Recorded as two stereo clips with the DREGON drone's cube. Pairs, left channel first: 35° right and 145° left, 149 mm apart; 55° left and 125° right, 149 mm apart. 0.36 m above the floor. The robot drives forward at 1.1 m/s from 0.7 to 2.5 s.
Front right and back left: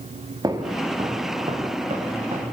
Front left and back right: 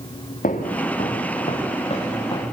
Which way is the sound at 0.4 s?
80° left.